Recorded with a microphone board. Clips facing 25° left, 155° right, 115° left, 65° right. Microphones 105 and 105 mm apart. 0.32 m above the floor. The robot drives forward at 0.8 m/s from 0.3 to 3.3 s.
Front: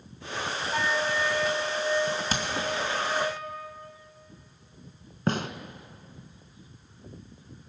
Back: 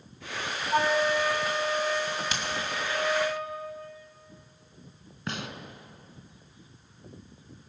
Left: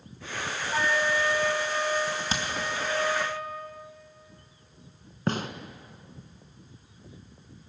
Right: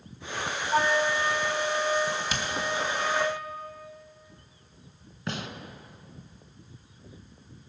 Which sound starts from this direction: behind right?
A flute, at 0.7 s.